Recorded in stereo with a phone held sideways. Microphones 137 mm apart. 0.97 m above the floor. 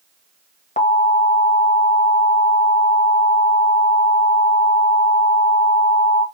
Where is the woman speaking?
No woman speaking in this recording.